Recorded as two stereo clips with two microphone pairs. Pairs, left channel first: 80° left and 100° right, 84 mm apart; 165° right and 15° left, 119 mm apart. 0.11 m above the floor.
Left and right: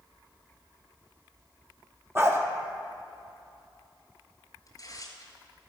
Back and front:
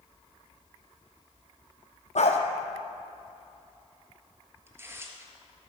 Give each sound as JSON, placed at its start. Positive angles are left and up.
{"t": 2.1, "sound": "a dog barking", "azimuth_deg": -165, "distance_m": 1.3}
{"t": 4.7, "sound": "tearing paper", "azimuth_deg": 75, "distance_m": 1.4}